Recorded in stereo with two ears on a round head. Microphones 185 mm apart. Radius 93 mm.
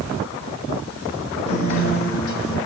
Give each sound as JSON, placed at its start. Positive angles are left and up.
{"t": 1.5, "sound": "a guitar", "side_deg": 50, "distance_m": 3.5}